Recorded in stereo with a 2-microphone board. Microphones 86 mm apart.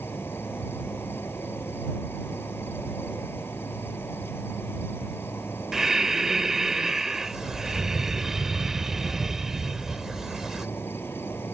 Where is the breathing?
5° right (ahead or behind).